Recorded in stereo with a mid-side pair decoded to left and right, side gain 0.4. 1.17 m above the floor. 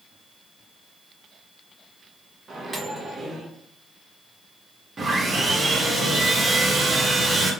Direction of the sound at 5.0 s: 40° right.